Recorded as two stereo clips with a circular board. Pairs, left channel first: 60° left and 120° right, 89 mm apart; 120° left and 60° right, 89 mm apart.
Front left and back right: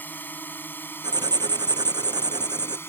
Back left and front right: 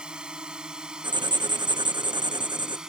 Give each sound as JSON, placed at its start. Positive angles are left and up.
{"t": 0.0, "sound": "a drone", "azimuth_deg": 10}
{"t": 1.0, "sound": "writing", "azimuth_deg": -85}